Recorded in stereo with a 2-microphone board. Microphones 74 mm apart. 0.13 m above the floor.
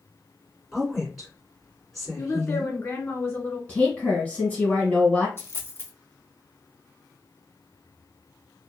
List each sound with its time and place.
0.7 s a woman speaking: 5° left (ahead or behind), 1.9 m
2.2 s a woman speaking: 30° left (ahead or behind), 1.7 m
3.7 s a woman speaking: 20° left (ahead or behind), 1.7 m
5.4 s a dropped coin: 35° left (ahead or behind), 1.0 m